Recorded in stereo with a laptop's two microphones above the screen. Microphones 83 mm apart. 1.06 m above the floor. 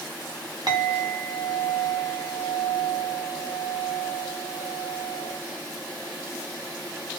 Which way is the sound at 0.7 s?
55° right (ahead or behind).